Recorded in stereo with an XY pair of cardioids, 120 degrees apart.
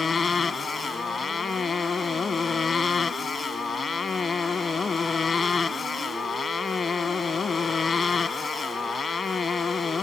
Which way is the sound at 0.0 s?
35° left.